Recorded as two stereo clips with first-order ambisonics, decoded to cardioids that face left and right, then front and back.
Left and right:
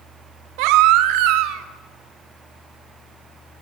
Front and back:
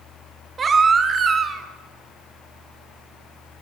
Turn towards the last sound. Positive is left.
turn(degrees=-110)